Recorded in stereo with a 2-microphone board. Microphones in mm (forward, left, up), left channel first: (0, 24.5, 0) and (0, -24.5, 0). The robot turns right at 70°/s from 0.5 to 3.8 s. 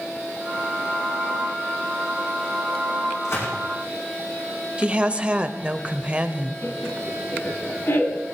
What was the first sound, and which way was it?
A gunshot, 65° left (ahead or behind).